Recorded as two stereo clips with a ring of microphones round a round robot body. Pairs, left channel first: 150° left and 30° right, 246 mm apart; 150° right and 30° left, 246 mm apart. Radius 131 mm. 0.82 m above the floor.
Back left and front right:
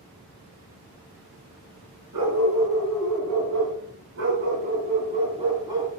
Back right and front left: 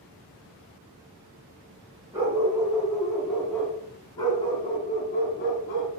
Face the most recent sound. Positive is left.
turn(degrees=-110)